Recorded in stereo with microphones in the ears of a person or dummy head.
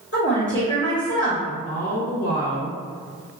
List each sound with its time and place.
0.1 s a woman speaking: 50° left (ahead or behind), 1.6 m
1.5 s a woman speaking: 80° left, 0.8 m